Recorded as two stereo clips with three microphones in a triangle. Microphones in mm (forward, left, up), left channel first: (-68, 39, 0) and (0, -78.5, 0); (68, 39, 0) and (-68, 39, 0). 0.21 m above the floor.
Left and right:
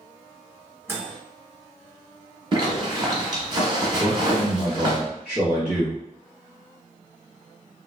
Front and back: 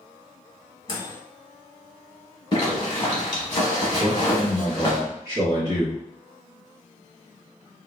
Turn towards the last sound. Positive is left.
turn(degrees=-140)